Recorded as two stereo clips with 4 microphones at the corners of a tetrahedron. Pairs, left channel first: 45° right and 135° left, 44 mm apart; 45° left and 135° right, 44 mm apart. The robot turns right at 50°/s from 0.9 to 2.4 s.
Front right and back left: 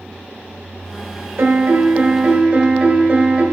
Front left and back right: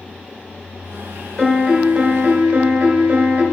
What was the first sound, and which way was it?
A piano, 130° left.